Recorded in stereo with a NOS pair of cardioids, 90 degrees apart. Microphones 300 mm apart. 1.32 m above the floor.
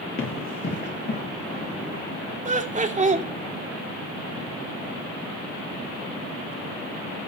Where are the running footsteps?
45° left, 9.5 m; by 2.0 s 25° left, 9 m.